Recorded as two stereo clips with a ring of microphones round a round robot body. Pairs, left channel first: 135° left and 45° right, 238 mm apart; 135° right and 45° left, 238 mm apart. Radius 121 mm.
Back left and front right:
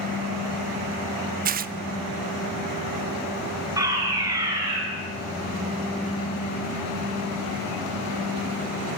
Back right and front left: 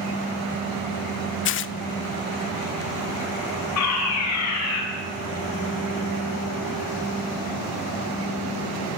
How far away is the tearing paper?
About 0.7 m.